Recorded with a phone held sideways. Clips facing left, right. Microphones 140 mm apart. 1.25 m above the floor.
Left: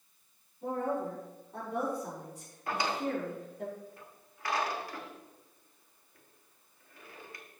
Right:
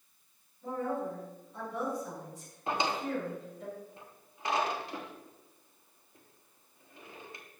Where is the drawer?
25° right (ahead or behind), 1.3 m.